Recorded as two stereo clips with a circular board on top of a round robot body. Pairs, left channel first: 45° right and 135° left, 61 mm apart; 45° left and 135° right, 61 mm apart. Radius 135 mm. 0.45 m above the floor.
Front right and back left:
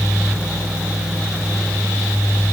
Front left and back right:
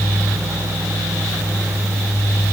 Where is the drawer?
I don't hear a drawer.